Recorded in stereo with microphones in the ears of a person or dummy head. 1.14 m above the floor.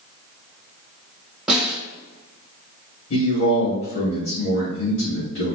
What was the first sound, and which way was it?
A snare drum, 5° right (ahead or behind).